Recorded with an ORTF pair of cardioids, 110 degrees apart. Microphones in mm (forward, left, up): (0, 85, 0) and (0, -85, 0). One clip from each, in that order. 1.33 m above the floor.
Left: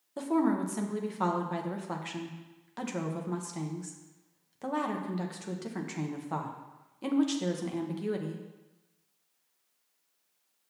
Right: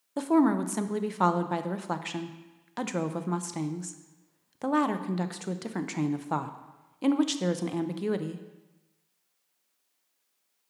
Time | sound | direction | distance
0.2 | a woman speaking | 30° right | 0.6 m